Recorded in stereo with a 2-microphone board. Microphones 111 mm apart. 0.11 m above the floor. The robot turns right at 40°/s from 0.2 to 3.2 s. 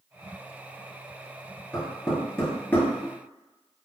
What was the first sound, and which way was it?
Knocking, 5° right (ahead or behind).